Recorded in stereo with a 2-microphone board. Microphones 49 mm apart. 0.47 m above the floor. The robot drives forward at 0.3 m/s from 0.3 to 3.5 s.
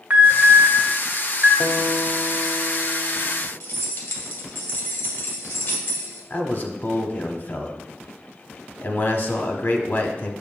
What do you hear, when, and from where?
0.1 s an alarm: 30° right (ahead or behind), 1.9 m; by 1.5 s 35° right (ahead or behind), 1.7 m
1.6 s a guitar: 65° left (ahead or behind), 0.7 m; by 3.5 s 35° left (ahead or behind), 1.0 m
3.6 s keys jangling: 65° left (ahead or behind), 1.8 m
6.3 s a man speaking: 40° left (ahead or behind), 0.9 m